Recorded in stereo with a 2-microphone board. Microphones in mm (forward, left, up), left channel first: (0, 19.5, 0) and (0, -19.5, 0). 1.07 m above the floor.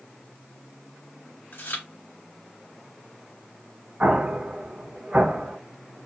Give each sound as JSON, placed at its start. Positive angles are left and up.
{"t": 1.5, "sound": "chewing", "side_deg": 70, "distance_m": 2.0}
{"t": 4.0, "sound": "an explosion", "side_deg": -50, "distance_m": 1.5}